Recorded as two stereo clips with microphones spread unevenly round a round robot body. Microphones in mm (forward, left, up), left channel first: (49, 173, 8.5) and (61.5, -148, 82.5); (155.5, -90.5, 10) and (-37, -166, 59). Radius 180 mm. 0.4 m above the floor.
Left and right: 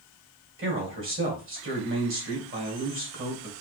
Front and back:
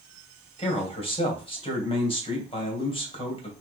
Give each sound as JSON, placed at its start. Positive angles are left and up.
{"t": 0.6, "sound": "a man speaking", "azimuth_deg": -30, "distance_m": 3.0}